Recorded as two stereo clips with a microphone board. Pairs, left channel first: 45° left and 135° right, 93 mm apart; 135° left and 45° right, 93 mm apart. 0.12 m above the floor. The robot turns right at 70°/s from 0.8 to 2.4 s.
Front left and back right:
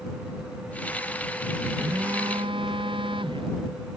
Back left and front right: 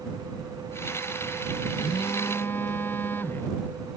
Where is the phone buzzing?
160° left; by 3.5 s 160° right.